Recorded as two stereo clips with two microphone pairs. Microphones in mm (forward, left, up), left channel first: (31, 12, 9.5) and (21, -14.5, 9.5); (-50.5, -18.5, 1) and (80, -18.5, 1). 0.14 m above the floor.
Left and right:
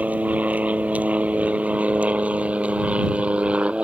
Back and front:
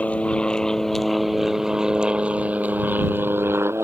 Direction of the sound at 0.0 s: 100° right.